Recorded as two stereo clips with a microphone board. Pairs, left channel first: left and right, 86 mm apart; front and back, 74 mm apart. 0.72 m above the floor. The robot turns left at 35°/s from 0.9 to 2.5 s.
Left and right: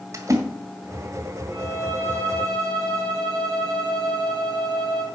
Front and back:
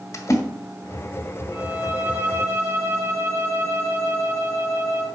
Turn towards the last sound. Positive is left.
turn(degrees=-45)